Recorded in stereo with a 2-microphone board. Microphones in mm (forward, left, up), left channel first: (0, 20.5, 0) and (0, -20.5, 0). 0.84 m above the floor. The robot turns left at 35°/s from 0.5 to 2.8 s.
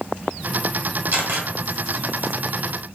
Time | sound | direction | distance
1.1 | a camera shutter | 50° right (ahead or behind) | 1.6 m